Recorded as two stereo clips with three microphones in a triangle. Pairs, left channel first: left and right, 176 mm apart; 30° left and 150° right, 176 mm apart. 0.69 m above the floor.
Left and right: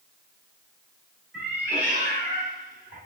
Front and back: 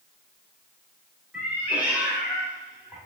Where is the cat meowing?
70° right, 1.4 m.